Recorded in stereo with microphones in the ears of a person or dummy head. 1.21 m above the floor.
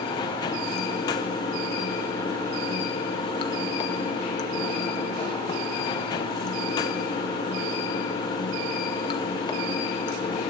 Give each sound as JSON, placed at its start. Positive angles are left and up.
{"t": 0.0, "sound": "running water", "side_deg": 20, "distance_m": 0.7}